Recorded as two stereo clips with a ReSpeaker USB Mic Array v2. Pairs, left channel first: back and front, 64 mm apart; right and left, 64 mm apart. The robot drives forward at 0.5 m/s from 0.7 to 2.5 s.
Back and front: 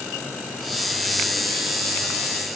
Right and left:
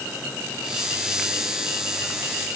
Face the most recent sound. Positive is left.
No sound to turn to.